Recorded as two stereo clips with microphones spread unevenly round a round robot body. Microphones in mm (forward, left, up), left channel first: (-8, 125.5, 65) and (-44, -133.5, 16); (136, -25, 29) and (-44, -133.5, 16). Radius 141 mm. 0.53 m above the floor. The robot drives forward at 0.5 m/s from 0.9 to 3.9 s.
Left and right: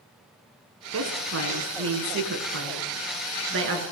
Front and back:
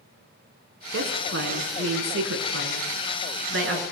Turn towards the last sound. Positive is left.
turn(degrees=-140)